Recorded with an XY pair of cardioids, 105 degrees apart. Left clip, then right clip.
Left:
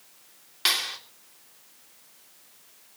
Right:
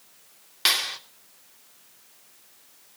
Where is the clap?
20° right, 2.5 m.